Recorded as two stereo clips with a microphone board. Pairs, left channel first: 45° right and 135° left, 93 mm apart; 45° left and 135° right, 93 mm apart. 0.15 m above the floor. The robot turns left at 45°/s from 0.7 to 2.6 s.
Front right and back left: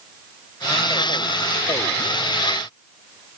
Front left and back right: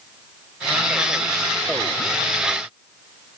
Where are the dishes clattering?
No dishes clattering in this recording.